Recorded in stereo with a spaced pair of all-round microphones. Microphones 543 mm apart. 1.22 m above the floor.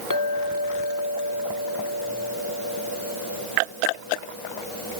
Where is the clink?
35° left (ahead or behind), 2 m.